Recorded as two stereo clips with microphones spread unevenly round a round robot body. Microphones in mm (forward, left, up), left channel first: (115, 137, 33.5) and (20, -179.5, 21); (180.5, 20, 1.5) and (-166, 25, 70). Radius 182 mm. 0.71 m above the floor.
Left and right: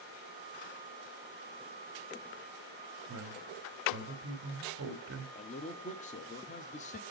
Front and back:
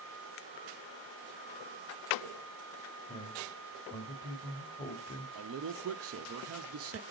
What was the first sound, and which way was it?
A man speaking, 70° right.